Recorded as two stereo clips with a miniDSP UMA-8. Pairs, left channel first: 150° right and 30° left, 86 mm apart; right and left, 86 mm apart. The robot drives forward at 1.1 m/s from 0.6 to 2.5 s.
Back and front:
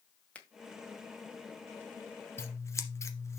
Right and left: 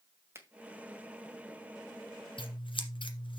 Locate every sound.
0.3 s a finger snap: 140° left, 1.7 m
2.4 s scissors: 90° right, 1.5 m; by 3.4 s 95° right, 1.5 m